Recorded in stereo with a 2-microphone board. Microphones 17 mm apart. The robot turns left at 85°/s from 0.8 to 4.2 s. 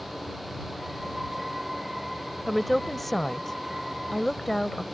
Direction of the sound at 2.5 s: 5° right (ahead or behind).